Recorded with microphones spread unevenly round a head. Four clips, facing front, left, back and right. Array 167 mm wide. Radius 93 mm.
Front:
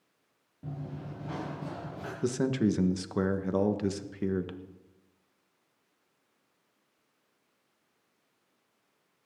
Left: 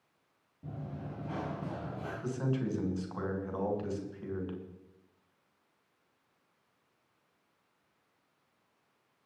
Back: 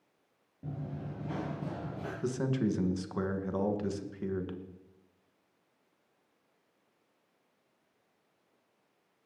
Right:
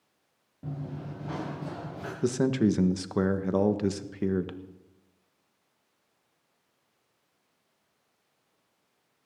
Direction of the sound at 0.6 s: 125° right.